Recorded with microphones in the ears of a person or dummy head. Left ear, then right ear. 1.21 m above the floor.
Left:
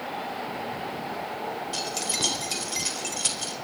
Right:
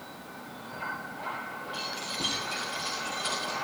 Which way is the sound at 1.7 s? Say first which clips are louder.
Left 4 dB; 65° left (ahead or behind).